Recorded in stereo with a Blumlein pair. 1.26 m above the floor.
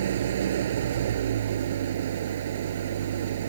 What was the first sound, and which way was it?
An engine running, 60° right.